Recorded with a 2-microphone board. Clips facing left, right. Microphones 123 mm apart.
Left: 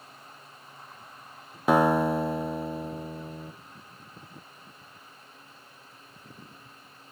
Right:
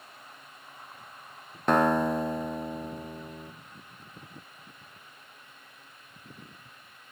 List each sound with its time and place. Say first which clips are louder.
1.7 s a guitar: left 2 dB; 5° left (ahead or behind), 0.7 m